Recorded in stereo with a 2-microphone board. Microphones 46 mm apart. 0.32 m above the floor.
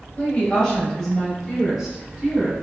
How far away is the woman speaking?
About 1.0 m.